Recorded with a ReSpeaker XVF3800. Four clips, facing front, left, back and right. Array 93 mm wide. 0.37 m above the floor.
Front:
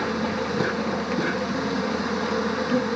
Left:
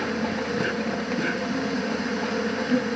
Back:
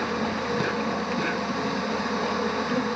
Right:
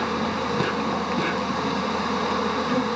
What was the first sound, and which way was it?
An insect, 90° right.